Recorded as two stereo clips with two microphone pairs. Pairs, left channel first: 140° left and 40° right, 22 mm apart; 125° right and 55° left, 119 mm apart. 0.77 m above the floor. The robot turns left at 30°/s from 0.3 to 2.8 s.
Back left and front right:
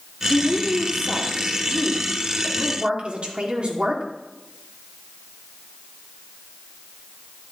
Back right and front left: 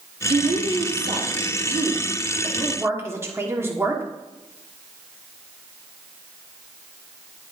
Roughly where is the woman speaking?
Ahead left.